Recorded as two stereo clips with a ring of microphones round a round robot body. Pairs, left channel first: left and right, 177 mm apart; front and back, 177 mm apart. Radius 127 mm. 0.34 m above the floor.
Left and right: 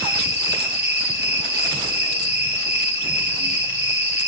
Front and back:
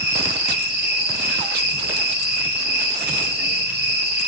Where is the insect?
155° left, 5.5 m.